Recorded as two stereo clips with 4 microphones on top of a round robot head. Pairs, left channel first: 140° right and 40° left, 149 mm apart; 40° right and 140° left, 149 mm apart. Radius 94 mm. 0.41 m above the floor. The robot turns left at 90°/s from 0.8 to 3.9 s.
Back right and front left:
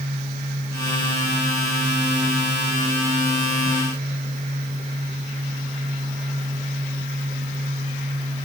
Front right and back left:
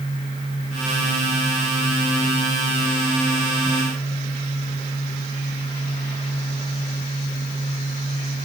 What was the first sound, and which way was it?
Only background noise.